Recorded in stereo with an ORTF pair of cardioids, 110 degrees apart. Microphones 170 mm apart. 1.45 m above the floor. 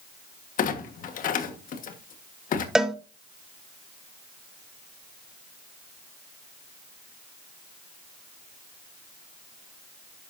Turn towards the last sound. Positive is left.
turn(degrees=-5)